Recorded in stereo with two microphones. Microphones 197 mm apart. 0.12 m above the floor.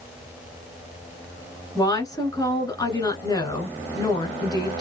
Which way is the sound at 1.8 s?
20° left (ahead or behind).